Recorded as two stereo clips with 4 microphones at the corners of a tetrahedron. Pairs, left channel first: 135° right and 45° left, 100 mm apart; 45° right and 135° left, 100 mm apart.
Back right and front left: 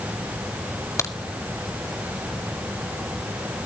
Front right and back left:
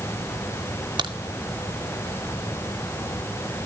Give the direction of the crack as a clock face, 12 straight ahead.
6 o'clock.